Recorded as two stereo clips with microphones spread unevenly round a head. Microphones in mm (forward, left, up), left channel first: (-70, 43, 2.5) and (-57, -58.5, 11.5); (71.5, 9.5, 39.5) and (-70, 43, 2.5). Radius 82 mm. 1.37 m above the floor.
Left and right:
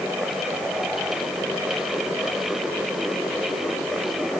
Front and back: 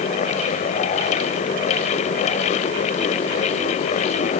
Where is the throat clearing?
No throat clearing in this recording.